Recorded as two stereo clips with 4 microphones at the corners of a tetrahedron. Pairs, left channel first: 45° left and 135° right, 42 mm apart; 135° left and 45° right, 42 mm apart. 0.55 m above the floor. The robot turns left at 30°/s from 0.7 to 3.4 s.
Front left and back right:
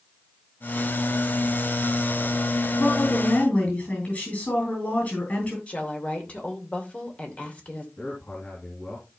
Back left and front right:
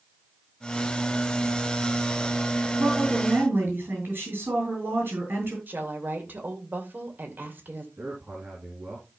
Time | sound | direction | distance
2.8 | a woman speaking | 10° left | 7 m
5.7 | a woman speaking | 5° right | 2.5 m
8.0 | a man speaking | straight ahead | 4.5 m